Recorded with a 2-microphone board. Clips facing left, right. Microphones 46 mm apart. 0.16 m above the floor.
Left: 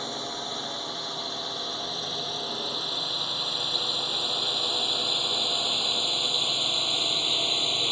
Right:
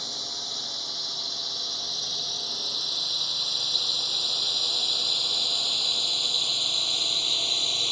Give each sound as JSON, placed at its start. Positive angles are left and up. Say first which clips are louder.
{"t": 0.0, "sound": "a drone", "louder": "left 4 dB", "side_deg": 30}